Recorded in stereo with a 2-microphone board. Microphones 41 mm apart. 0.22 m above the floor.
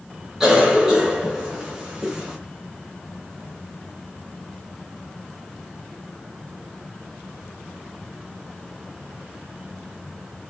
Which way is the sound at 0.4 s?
10° right (ahead or behind).